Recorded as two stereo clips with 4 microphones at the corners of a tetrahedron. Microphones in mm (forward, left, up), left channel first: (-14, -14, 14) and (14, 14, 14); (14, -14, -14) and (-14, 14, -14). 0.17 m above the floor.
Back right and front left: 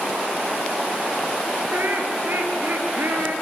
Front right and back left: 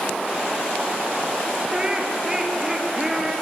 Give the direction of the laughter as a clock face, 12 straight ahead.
10 o'clock.